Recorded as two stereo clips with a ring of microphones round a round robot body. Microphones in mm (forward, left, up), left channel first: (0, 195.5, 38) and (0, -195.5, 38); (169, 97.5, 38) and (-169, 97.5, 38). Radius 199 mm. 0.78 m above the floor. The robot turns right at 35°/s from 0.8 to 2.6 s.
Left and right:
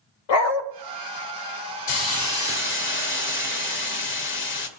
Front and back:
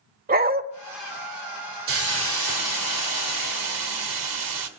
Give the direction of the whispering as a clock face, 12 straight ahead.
No whispering in this recording.